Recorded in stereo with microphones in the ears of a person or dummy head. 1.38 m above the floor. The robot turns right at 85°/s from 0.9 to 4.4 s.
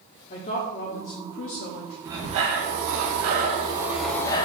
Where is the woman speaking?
40° left, 0.7 m; by 1.9 s 130° left, 0.7 m.